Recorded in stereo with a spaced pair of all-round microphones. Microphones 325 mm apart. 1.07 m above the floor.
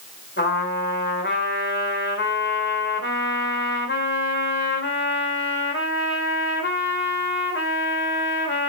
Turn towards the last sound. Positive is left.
turn(degrees=35)  # may be behind; listen again after turning